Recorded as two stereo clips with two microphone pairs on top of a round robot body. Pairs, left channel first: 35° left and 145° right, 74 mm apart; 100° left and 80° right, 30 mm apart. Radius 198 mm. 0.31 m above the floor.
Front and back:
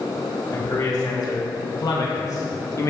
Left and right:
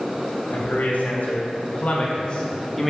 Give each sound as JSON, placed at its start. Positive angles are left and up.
{"t": 0.5, "sound": "a man speaking", "azimuth_deg": 75, "distance_m": 3.0}